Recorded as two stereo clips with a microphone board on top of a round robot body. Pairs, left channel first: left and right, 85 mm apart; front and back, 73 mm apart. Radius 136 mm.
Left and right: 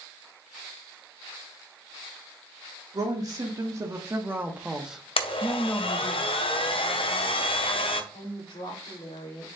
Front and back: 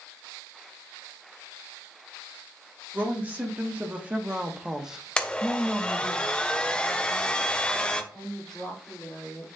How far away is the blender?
About 0.6 m.